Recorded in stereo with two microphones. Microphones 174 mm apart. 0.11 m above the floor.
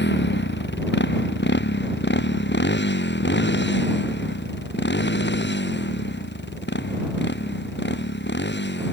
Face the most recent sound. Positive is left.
turn(degrees=80)